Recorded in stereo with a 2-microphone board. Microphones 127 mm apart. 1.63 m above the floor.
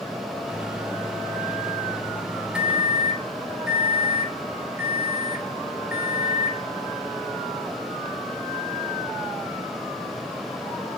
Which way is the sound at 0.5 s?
5° right (ahead or behind).